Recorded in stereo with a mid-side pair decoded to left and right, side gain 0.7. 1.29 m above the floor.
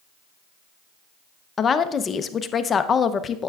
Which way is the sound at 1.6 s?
30° left.